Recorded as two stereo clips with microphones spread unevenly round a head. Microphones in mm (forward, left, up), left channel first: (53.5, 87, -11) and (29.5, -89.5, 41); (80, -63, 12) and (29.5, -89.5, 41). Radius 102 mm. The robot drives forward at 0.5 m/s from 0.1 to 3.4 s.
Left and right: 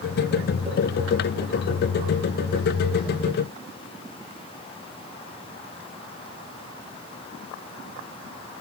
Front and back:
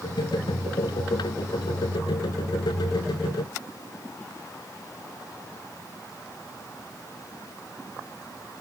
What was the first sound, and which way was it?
Only background noise.